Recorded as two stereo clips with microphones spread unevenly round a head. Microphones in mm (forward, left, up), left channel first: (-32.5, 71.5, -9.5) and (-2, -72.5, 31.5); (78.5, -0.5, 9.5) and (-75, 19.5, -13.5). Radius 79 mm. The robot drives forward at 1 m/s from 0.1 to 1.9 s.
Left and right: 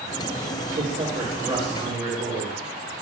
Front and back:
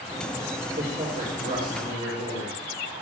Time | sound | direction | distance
0.8 | a man speaking | 125° right | 4.5 m